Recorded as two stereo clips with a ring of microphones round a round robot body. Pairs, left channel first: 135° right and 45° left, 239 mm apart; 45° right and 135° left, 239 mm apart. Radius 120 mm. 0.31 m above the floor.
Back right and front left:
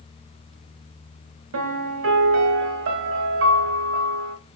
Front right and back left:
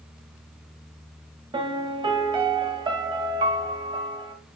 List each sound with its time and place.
1.5 s a piano: 65° left, 1.3 m